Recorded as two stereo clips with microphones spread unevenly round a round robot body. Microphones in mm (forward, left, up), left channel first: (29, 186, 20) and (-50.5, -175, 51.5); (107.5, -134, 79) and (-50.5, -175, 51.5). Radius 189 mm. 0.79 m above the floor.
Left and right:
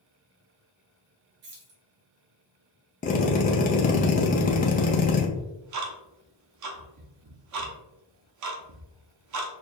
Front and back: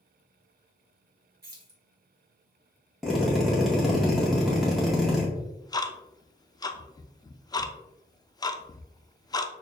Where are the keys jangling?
135° right, 1.6 m.